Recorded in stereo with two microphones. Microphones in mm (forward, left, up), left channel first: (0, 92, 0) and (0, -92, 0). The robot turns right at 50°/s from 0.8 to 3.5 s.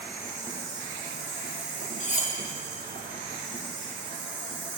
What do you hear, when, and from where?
0.0 s an insect: 160° right, 1.4 m; by 4.8 s 25° right, 1.4 m
2.0 s cutlery clinking: 40° left (ahead or behind), 0.8 m; by 2.4 s 35° left (ahead or behind), 0.8 m